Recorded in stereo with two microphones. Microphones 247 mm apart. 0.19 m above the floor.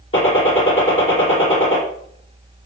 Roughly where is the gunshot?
Left.